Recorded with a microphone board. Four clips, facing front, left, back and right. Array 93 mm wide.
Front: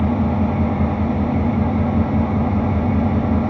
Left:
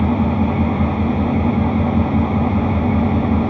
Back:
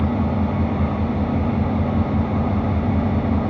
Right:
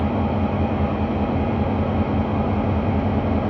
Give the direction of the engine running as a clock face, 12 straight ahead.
9 o'clock.